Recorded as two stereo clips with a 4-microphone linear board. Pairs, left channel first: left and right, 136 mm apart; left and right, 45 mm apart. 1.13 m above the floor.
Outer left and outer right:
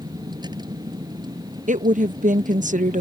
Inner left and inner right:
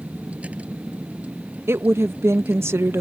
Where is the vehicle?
30° right (ahead or behind).